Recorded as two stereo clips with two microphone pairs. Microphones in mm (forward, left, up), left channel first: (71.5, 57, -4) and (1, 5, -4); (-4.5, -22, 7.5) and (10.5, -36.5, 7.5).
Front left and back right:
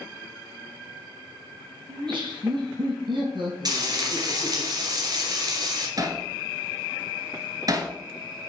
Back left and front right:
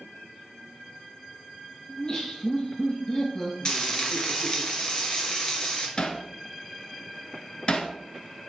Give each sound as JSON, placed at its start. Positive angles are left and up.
{"t": 1.9, "sound": "laughter", "azimuth_deg": -170, "distance_m": 4.5}
{"t": 3.6, "sound": "frying", "azimuth_deg": -175, "distance_m": 2.5}
{"t": 6.0, "sound": "hammering", "azimuth_deg": 180, "distance_m": 1.3}